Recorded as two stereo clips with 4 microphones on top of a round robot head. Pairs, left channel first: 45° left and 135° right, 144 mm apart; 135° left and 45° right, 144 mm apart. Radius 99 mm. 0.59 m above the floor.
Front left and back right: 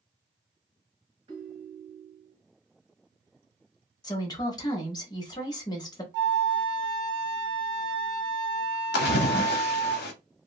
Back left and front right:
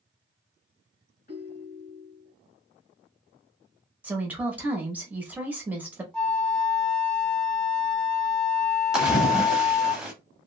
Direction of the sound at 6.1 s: 140° right.